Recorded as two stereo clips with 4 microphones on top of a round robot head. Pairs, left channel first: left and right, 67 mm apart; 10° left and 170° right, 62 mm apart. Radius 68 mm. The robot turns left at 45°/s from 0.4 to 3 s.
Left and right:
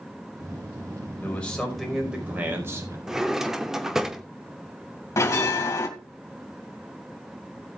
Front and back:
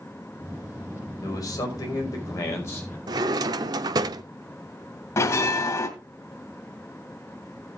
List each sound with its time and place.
1.2 s a man speaking: 25° left, 4.5 m; by 3.0 s 55° right, 4.5 m
3.1 s a drawer: 175° right, 0.7 m
5.2 s a bell: 45° left, 2.5 m